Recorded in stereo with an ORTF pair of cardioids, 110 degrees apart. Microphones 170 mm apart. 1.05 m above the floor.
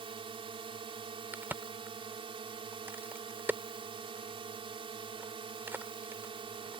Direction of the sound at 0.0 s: 35° right.